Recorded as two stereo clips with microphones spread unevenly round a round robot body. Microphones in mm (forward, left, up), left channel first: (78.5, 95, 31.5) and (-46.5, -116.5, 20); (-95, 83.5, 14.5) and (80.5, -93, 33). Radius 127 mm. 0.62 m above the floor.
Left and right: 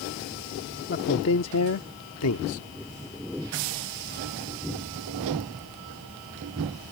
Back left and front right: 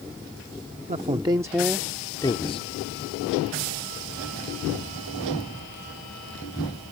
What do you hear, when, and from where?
0.9 s a man speaking: 15° left; by 2.7 s 75° left